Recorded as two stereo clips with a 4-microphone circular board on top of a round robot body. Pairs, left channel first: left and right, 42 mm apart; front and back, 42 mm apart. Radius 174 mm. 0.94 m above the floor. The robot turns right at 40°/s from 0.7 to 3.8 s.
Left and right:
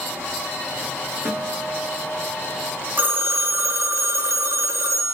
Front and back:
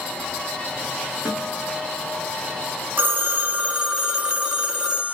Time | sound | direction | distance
1.2 | a guitar | 105° right | 1.5 m
3.0 | a phone ringing | 135° right | 0.5 m